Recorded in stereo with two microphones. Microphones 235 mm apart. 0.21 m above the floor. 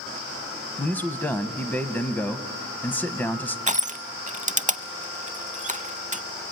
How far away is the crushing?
About 0.5 m.